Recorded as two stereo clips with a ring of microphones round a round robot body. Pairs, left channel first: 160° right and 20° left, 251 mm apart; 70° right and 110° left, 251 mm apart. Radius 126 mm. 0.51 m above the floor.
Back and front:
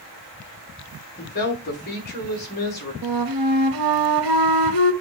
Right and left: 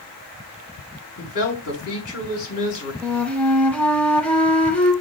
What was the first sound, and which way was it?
A woman speaking, 105° right.